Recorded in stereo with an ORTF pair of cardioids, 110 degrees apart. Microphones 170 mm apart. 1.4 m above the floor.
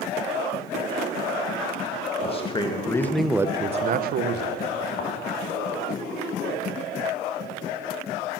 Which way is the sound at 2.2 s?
35° left.